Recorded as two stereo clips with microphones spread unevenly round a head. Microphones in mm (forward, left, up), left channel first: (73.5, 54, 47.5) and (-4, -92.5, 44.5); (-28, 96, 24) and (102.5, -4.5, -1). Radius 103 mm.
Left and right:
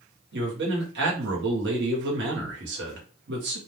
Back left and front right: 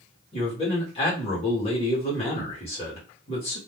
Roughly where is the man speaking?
Behind right.